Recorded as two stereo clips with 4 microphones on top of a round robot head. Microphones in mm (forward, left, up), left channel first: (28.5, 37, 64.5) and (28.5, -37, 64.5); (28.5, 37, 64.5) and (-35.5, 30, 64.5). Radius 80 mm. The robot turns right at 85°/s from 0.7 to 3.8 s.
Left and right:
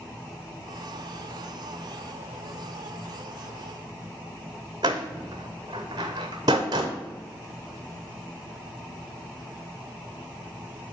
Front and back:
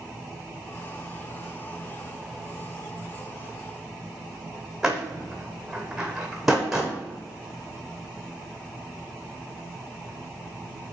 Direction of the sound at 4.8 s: 90° right.